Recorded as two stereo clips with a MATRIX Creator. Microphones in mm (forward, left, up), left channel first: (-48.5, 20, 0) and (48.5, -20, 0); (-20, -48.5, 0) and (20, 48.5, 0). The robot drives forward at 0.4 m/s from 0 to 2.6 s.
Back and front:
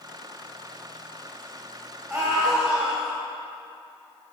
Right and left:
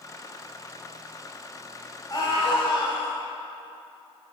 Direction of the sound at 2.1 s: 90° right.